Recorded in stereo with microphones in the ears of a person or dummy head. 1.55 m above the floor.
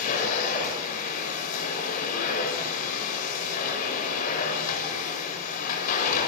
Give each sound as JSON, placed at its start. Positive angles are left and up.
{"t": 0.0, "sound": "a machine running", "side_deg": 40, "distance_m": 7.0}